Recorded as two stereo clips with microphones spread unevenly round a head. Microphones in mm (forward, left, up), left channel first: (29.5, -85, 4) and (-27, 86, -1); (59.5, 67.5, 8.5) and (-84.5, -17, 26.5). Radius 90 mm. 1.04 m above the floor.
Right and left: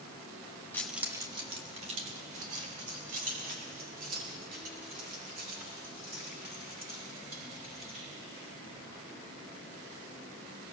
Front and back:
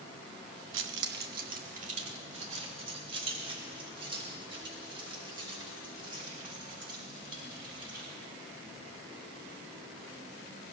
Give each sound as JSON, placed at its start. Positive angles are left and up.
{"t": 0.7, "sound": "keys jangling", "azimuth_deg": -150, "distance_m": 0.9}